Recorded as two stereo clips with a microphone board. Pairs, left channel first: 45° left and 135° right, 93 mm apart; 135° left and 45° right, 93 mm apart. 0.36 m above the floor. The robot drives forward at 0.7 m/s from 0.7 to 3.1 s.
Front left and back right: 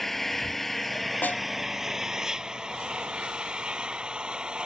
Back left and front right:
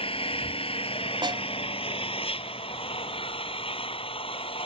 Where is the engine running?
135° left; by 4.7 s 145° left.